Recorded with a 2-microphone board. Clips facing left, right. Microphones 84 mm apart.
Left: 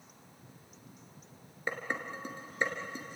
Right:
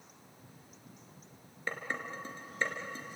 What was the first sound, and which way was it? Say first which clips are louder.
Dishes clattering: left 2 dB; 15° left (ahead or behind).